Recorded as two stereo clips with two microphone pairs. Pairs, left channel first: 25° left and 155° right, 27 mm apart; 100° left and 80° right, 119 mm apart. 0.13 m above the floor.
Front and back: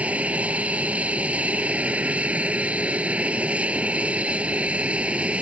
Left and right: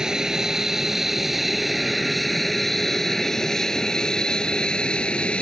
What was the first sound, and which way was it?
An aircraft, 165° right.